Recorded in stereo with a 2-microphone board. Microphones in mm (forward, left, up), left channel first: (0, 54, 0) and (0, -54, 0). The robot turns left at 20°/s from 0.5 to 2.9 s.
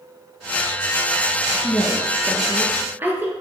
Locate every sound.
1.6 s a woman speaking: centre (ahead or behind), 1.7 m; by 3.3 s 20° right (ahead or behind), 1.7 m